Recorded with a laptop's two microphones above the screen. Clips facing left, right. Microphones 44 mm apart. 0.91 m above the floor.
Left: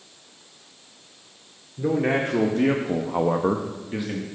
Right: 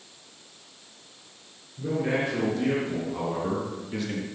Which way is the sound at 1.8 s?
55° left (ahead or behind).